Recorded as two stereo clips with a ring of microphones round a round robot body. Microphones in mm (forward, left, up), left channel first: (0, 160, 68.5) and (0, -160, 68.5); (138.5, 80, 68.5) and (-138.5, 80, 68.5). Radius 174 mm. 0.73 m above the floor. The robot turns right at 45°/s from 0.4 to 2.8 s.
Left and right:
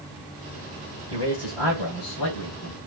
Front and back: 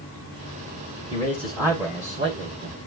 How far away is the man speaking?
About 4.5 m.